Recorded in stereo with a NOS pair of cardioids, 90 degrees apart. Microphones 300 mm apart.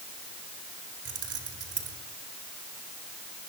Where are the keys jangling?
50° right, 4 m.